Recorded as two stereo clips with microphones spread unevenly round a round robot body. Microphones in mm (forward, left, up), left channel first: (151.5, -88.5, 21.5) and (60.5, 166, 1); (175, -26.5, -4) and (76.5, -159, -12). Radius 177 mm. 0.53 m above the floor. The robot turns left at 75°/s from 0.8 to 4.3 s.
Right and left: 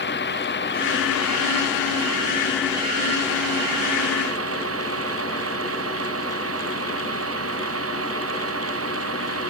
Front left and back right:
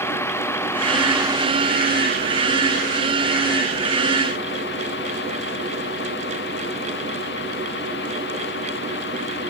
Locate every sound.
0.0 s a vehicle: 20° right; by 9.5 s 75° left